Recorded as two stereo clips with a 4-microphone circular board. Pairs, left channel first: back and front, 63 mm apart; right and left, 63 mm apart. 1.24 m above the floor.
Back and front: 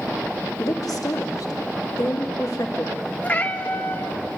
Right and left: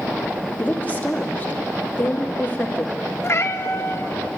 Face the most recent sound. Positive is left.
turn(degrees=-120)